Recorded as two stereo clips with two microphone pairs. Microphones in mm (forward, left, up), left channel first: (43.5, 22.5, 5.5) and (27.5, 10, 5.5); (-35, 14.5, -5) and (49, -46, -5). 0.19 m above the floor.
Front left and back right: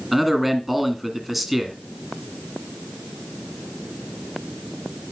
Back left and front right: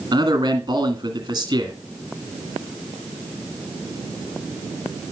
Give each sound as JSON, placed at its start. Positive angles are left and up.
{"t": 0.1, "sound": "a man speaking", "azimuth_deg": -70, "distance_m": 1.8}